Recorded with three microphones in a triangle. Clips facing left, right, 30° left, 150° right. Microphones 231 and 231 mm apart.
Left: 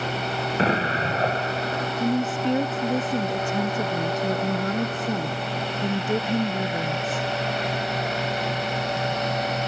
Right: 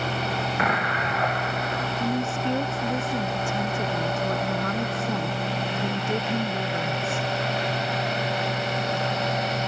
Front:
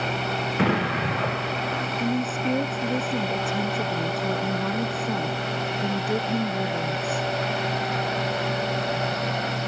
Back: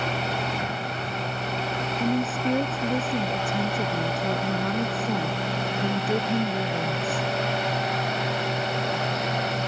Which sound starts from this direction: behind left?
A woman speaking, at 2.0 s.